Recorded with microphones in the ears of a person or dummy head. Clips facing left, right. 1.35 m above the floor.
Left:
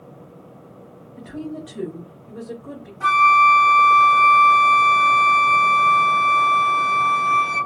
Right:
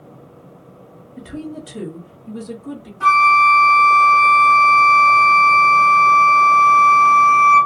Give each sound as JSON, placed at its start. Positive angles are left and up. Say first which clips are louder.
{"t": 1.2, "sound": "a woman speaking", "louder": "right 1 dB", "side_deg": -30, "distance_m": 0.8}
{"t": 3.0, "sound": "a flute", "louder": "right 2 dB", "side_deg": -25, "distance_m": 1.3}